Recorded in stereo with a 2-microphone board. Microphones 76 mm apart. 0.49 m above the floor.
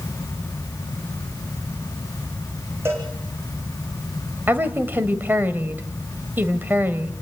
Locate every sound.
2.9 s a cowbell: 30° right (ahead or behind), 4.5 m
4.5 s a woman speaking: 25° right (ahead or behind), 2 m